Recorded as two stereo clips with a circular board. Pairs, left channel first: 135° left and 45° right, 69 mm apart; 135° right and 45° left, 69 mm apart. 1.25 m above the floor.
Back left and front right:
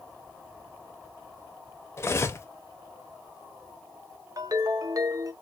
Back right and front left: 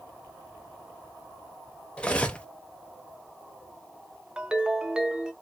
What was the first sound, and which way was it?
Cutlery clinking, 160° left.